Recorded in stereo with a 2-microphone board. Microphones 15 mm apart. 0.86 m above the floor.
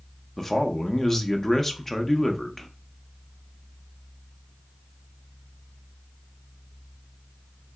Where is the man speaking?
25° left (ahead or behind), 0.6 m.